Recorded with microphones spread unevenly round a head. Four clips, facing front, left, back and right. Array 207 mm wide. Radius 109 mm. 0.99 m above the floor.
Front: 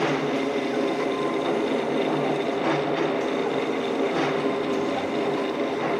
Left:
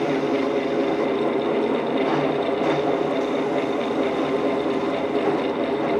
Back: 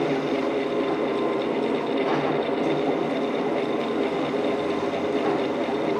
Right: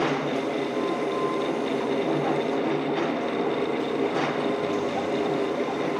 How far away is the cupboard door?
I don't hear a cupboard door.